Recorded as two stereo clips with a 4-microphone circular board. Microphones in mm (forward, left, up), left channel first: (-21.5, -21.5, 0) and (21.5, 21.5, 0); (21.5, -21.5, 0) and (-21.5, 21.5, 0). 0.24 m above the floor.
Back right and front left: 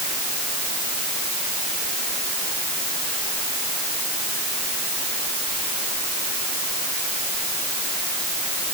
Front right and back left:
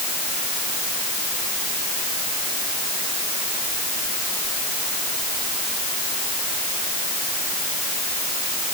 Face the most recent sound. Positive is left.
No sound to turn to.